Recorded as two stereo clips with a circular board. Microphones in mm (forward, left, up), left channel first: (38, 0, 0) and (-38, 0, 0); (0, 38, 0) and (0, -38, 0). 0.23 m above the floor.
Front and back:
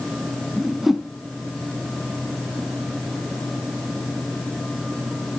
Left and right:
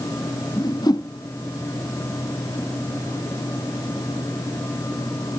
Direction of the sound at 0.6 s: 90° left.